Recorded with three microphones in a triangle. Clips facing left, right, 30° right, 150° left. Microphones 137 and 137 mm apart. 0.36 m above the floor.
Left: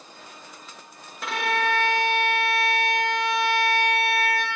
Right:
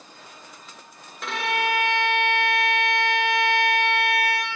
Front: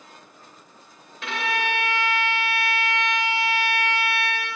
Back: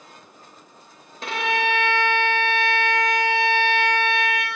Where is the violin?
175° left, 0.9 m.